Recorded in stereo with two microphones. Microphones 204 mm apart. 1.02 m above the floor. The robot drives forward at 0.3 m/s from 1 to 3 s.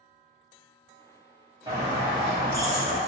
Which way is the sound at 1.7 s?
20° right (ahead or behind).